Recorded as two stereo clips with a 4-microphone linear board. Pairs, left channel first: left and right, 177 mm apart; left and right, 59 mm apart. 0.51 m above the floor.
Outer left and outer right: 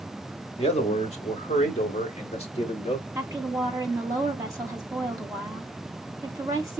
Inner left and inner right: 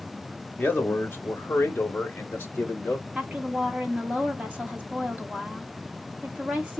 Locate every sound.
0.6 s a man speaking: 35° left (ahead or behind), 1.2 m
3.1 s a woman speaking: 20° right (ahead or behind), 1.2 m